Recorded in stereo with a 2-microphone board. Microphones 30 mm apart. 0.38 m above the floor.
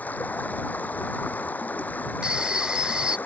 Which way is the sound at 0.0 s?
70° left (ahead or behind).